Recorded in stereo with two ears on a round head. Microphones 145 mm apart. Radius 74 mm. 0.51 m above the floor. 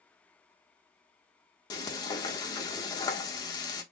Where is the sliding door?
I don't hear a sliding door.